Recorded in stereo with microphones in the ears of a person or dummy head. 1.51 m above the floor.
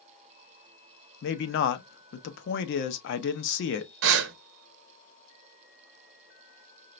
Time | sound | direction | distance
1.2 | a man speaking | 60° left (ahead or behind) | 0.8 m
4.0 | breathing | 65° right (ahead or behind) | 0.7 m